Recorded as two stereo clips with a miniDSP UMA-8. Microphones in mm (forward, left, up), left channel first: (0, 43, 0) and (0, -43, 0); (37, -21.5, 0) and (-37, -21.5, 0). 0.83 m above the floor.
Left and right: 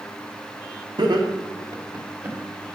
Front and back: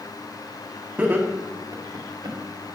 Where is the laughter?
110° right, 1.2 m; by 2.4 s 155° right, 1.6 m.